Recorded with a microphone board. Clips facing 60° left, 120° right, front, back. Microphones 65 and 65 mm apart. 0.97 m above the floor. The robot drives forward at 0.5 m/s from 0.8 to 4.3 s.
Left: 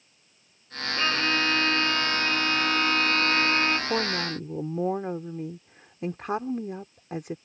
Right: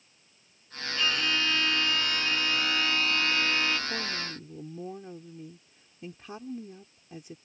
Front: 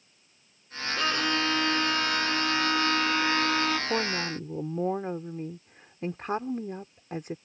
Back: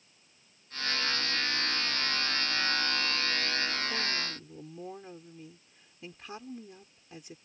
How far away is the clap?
No clap in this recording.